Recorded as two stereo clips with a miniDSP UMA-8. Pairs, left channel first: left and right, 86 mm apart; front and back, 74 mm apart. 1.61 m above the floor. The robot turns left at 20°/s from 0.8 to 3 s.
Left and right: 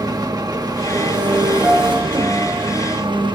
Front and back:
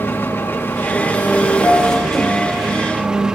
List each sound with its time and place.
0.0 s an engine running: 60° right, 1.3 m; by 3.4 s 100° right, 1.3 m
1.6 s a piano: 30° right, 5.5 m; by 2.6 s 50° right, 5.5 m